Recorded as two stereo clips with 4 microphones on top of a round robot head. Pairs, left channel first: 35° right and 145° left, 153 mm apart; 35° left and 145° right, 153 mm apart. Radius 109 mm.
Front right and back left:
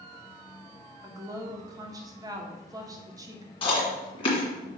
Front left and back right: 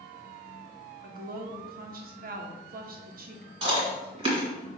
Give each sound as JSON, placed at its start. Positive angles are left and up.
{"t": 1.0, "sound": "a woman speaking", "azimuth_deg": -150, "distance_m": 1.1}
{"t": 3.6, "sound": "chewing", "azimuth_deg": -90, "distance_m": 2.0}